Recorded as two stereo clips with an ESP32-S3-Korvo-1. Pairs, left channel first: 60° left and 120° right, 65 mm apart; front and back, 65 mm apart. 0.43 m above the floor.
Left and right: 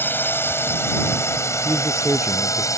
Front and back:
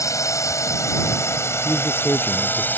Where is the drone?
10° left; by 2.8 s 55° left.